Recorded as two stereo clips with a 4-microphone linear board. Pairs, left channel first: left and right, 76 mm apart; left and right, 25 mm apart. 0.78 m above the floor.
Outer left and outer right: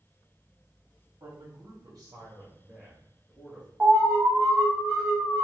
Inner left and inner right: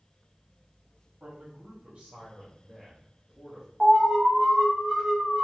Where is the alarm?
30° right (ahead or behind), 1.2 m.